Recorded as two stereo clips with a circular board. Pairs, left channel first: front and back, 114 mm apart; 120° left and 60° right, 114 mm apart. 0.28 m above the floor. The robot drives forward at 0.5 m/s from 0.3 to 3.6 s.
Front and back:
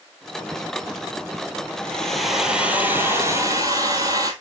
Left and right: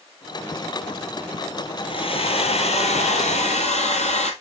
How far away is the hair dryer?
About 1.1 m.